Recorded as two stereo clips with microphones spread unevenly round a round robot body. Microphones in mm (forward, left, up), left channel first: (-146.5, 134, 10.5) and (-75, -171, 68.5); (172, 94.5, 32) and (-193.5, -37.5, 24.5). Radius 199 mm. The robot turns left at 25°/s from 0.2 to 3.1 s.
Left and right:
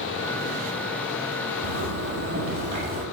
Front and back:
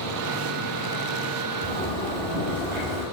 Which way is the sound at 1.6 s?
110° right.